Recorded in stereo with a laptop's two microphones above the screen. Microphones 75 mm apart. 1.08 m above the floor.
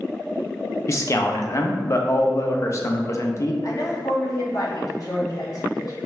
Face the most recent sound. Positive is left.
turn(degrees=45)  # may be behind; listen again after turning